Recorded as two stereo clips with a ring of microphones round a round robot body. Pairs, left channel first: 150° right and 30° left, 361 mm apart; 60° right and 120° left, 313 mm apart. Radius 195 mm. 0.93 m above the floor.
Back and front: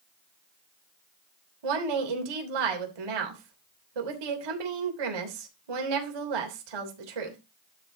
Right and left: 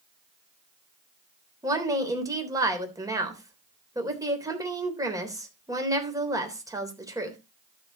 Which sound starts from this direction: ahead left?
A woman speaking, at 1.6 s.